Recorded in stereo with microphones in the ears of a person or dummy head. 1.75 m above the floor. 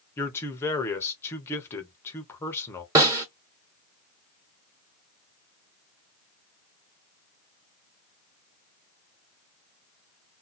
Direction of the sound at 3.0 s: 15° right (ahead or behind).